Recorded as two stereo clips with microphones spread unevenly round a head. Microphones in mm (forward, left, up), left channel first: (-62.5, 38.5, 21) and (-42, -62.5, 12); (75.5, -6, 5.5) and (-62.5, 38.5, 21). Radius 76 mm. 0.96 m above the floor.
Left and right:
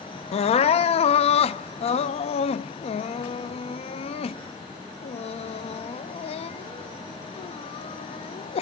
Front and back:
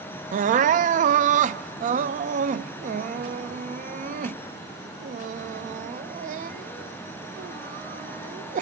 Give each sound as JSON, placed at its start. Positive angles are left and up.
{"t": 0.3, "sound": "crying", "azimuth_deg": 125, "distance_m": 0.5}